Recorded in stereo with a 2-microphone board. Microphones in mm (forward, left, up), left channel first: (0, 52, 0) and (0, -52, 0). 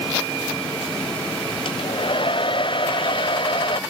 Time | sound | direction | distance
1.6 | a hair dryer | 55° left (ahead or behind) | ?